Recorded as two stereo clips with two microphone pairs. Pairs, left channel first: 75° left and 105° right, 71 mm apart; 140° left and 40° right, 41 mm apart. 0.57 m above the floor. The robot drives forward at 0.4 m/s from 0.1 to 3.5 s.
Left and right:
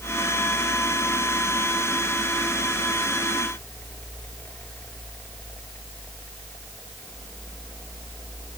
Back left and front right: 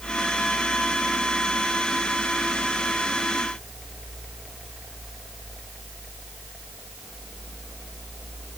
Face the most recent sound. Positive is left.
No sound to turn to.